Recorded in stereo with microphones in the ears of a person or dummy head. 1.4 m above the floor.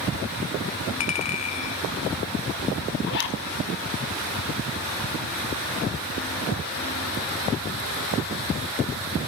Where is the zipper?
60° left (ahead or behind), 2 m.